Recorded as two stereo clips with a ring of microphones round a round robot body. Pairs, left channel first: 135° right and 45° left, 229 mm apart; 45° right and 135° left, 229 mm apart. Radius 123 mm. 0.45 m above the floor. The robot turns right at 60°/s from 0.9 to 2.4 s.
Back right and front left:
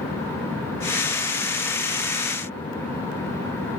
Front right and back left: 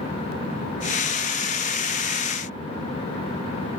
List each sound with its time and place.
Only background noise.